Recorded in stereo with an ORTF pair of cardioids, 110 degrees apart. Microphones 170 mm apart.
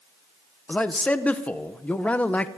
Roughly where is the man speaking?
Ahead.